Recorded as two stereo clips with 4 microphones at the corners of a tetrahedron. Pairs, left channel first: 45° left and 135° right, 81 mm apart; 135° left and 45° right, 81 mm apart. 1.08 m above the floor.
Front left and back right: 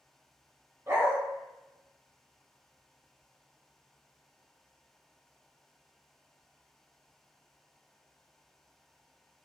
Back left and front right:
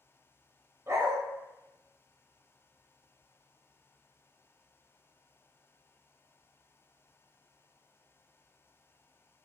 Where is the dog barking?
90° right, 0.7 m.